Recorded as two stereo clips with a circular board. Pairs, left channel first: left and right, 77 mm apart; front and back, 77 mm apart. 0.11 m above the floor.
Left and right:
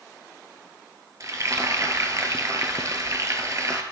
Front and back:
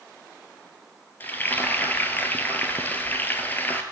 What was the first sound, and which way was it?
Frying, 60° right.